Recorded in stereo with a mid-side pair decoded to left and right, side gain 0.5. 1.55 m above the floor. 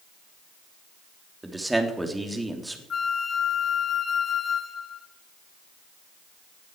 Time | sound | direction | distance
1.4 | a man speaking | 10° right | 3.5 m
2.9 | a flute | 40° left | 1.4 m